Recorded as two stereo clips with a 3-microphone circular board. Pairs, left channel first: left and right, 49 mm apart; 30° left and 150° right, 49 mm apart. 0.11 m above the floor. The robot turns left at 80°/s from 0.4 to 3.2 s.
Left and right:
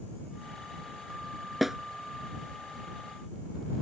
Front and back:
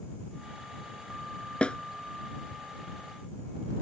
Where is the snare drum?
5° right; by 1.8 s 20° right.